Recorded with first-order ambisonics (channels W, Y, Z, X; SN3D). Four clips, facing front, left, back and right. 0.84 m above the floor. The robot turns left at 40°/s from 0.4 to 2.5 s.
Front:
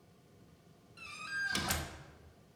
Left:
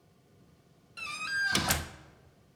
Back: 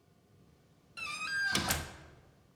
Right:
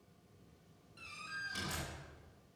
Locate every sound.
1.0 s a door slam: 130° left, 0.8 m; by 1.9 s 90° left, 0.8 m